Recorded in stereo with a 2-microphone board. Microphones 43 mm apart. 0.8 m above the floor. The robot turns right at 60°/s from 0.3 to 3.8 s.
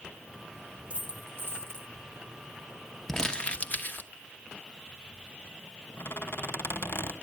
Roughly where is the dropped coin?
Behind right.